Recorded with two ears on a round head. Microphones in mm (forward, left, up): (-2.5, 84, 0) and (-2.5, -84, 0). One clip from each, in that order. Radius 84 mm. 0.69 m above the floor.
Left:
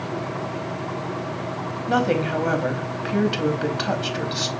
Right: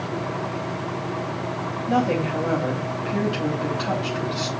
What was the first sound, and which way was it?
A woman speaking, 45° left (ahead or behind).